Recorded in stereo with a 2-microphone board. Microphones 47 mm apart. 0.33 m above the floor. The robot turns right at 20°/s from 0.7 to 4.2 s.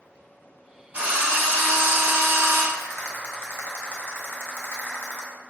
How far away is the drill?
About 1.9 m.